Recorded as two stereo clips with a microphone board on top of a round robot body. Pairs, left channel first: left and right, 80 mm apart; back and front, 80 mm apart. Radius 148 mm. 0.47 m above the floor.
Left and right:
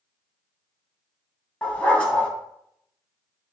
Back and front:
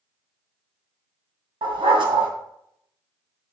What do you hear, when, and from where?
1.6 s a dog barking: 15° left, 2.5 m